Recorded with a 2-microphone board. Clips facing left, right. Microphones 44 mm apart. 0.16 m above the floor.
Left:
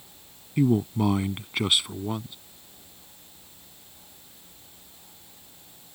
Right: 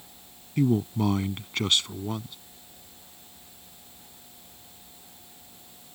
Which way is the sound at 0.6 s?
10° left (ahead or behind).